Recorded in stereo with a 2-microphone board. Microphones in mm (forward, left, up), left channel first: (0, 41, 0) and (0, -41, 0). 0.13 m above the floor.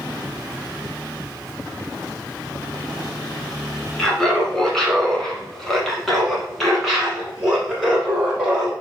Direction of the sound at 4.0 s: 5° left (ahead or behind).